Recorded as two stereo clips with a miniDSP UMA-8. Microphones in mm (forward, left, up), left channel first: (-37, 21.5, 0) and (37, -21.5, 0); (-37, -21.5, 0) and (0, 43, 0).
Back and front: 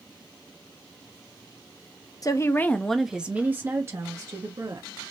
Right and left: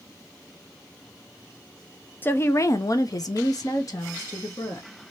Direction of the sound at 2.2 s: Straight behind.